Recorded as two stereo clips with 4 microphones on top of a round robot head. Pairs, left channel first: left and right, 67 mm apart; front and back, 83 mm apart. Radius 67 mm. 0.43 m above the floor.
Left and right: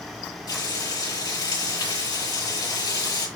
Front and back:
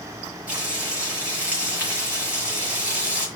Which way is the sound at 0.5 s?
105° left.